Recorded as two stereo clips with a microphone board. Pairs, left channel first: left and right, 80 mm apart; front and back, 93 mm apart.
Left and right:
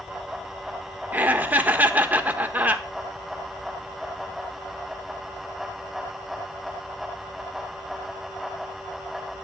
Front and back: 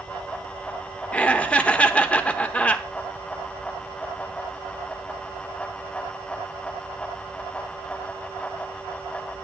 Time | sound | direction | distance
1.1 | laughter | 60° right | 1.0 m